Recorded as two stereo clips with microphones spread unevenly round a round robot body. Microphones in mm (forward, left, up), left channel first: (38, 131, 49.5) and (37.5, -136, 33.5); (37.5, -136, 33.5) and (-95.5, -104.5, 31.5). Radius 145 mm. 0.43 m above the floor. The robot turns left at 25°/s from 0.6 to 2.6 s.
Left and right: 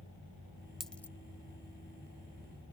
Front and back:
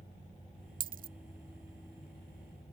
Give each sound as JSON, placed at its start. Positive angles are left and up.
{"t": 0.8, "sound": "a dropped coin", "azimuth_deg": 180}